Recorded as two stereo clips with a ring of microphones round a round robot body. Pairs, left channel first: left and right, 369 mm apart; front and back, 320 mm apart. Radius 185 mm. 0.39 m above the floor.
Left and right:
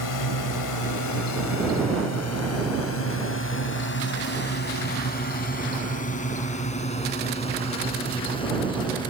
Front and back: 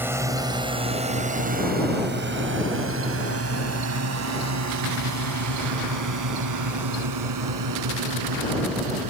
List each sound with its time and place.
0.0 s a drone: 100° left; by 9.1 s 170° left